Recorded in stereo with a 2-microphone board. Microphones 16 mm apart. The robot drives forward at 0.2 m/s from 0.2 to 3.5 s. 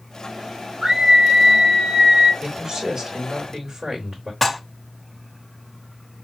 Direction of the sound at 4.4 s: 15° left (ahead or behind).